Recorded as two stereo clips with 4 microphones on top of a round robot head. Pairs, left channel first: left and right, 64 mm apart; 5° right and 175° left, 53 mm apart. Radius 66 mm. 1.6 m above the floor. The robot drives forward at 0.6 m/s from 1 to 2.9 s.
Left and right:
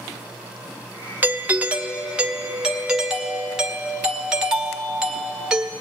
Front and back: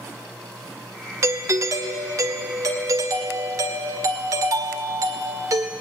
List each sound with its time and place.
1.2 s a doorbell: 155° right, 0.9 m; by 5.7 s 170° right, 1.8 m